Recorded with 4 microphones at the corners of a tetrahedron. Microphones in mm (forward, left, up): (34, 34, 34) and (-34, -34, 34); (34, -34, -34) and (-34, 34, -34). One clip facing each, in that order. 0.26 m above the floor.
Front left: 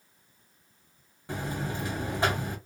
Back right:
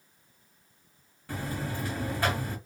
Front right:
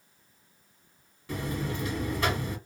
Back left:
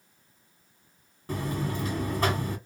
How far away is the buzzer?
About 1.6 m.